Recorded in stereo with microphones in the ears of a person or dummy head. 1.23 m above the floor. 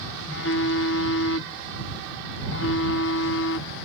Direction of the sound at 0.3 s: 60° left (ahead or behind).